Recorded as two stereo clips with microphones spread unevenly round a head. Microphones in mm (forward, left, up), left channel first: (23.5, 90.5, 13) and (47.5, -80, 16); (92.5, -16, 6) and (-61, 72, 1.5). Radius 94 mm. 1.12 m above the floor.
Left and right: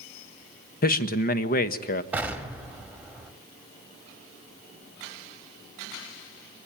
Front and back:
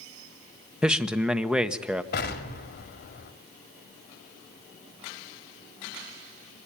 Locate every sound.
0.8 s a man speaking: 65° left, 1.3 m
2.1 s an explosion: straight ahead, 2 m